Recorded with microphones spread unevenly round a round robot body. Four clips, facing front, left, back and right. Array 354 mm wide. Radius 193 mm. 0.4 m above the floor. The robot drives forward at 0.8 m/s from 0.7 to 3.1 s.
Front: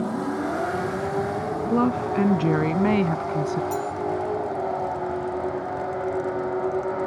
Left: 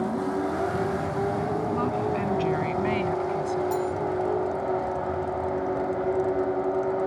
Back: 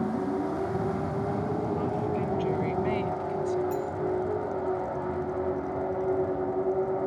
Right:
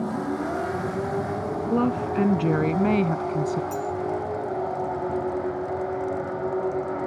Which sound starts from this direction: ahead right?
A woman speaking, at 1.7 s.